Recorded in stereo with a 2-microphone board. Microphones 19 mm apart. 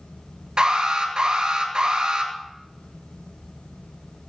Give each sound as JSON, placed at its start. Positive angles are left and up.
{"t": 0.6, "sound": "an alarm", "side_deg": -55, "distance_m": 2.5}